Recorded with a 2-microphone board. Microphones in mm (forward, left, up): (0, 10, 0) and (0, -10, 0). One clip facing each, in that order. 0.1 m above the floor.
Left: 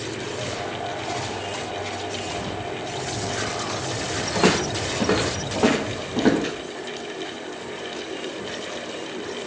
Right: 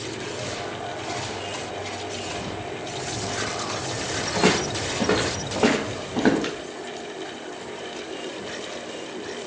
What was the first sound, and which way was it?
Footsteps, 15° left (ahead or behind).